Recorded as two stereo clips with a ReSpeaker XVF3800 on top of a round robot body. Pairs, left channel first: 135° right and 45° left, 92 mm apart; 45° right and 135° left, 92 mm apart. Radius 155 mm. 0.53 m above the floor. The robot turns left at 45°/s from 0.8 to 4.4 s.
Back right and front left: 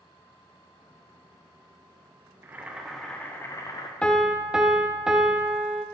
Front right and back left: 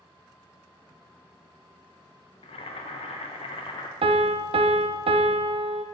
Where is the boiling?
20° right, 0.6 m; by 3.9 s 90° right, 0.6 m.